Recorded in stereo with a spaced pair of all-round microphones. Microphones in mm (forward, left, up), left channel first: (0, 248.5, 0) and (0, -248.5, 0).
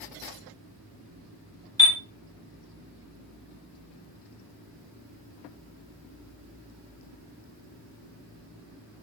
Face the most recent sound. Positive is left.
turn(degrees=5)  # may be behind; listen again after turning